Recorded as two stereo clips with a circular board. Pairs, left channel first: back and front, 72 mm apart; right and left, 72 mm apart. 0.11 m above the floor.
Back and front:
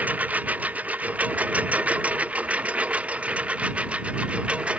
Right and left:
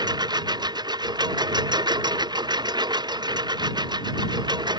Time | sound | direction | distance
0.0 | a lawn mower | 70° left | ?